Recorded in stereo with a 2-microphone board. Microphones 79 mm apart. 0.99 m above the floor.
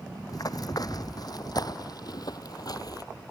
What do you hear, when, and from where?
0.3 s running footsteps: 55° left (ahead or behind)